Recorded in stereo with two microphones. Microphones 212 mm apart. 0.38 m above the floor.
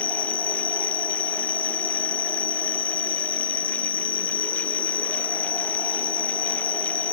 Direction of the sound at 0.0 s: 45° left (ahead or behind).